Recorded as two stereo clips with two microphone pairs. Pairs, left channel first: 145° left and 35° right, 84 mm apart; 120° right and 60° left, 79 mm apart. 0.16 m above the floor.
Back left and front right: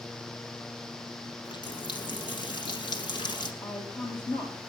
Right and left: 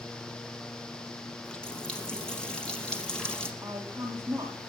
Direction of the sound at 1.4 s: 160° left.